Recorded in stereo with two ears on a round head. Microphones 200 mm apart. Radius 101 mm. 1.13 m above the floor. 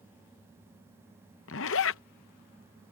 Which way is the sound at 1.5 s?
60° left (ahead or behind).